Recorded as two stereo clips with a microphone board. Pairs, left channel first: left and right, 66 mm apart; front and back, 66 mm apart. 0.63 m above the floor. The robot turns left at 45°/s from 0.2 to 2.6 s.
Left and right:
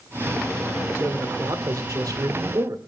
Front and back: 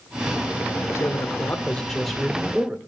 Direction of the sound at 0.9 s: 35° right.